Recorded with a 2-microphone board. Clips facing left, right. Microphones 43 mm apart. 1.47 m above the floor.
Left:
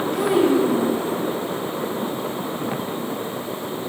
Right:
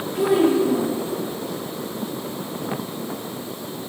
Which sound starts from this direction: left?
A child speaking, at 0.1 s.